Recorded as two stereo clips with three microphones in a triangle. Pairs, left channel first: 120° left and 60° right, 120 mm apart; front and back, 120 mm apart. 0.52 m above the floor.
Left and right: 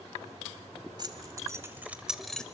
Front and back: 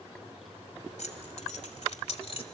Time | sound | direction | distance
1.0 | keys jangling | 5° right | 1.9 m